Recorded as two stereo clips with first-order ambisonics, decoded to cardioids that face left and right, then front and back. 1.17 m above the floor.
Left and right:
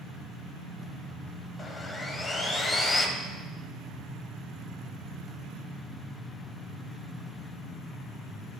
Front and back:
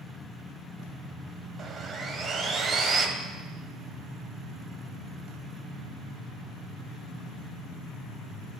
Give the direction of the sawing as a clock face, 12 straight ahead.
7 o'clock.